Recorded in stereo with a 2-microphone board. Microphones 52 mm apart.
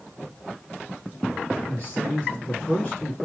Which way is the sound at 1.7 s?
25° left (ahead or behind).